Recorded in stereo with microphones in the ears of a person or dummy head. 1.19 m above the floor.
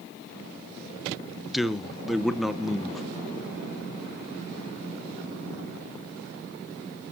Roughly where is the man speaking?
Centre.